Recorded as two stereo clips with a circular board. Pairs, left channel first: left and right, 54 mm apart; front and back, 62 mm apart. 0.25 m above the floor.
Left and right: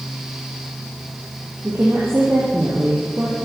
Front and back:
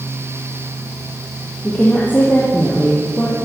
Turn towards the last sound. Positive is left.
turn(degrees=-60)